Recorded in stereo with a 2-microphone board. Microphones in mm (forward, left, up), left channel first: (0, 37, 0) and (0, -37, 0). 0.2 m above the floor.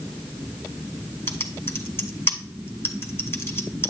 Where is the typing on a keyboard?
35° left (ahead or behind), 1.3 m.